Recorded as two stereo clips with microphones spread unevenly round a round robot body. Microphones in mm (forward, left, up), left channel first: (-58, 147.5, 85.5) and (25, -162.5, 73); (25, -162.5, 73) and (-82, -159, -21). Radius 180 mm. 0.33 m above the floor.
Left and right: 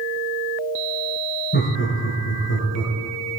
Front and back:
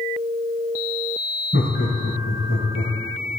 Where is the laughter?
50° left, 2 m; by 3.4 s 95° left, 1.8 m.